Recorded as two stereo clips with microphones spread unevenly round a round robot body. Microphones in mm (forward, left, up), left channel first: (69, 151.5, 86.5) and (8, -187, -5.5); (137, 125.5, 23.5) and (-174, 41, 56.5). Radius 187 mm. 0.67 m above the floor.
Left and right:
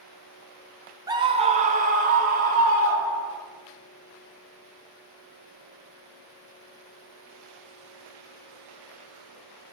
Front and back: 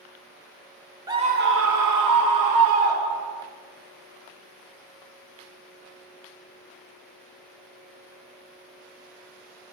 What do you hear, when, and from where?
1.1 s a scream: 85° right, 0.6 m; by 3.4 s 160° right, 1.6 m